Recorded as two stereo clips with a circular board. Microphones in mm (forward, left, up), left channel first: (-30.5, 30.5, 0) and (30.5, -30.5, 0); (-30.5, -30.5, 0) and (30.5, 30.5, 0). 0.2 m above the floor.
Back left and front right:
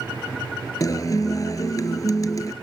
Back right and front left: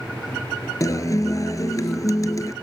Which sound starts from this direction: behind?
A guitar, at 0.8 s.